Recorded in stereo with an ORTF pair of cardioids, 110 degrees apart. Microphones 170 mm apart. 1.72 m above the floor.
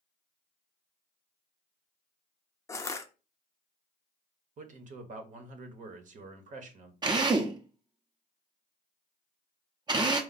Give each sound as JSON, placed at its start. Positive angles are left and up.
{"t": 2.7, "sound": "crushing", "azimuth_deg": 15, "distance_m": 0.7}
{"t": 4.6, "sound": "a man speaking", "azimuth_deg": -50, "distance_m": 1.1}
{"t": 7.0, "sound": "a drill", "azimuth_deg": -25, "distance_m": 0.9}